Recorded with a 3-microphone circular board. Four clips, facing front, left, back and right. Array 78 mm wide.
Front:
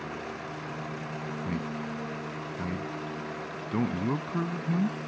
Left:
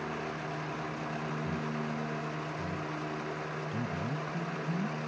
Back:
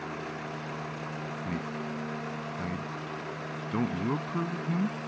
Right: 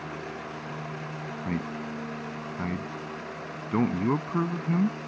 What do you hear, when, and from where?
1.4 s a man speaking: 90° right